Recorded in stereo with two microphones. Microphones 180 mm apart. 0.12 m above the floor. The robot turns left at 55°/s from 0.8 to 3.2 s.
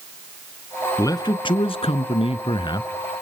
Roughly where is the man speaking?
Behind left.